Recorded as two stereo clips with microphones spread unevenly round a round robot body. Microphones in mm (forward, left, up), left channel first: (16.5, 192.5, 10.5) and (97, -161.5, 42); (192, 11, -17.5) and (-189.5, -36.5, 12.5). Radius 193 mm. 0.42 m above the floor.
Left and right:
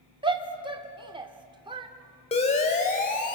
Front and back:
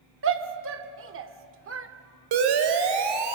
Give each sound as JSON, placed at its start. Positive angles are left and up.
{"t": 0.2, "sound": "a shout", "azimuth_deg": -150, "distance_m": 1.3}
{"t": 2.3, "sound": "a siren", "azimuth_deg": 170, "distance_m": 2.5}